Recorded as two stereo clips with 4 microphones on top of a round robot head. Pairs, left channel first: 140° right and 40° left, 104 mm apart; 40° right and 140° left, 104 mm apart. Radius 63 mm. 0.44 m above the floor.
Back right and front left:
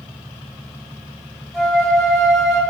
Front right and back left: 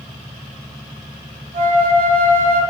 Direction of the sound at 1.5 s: 135° left.